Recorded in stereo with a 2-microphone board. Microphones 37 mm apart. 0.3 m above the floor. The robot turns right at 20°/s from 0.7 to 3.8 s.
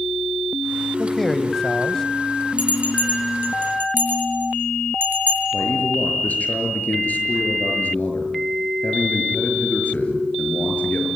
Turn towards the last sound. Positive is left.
turn(degrees=50)  # may be behind; listen again after turning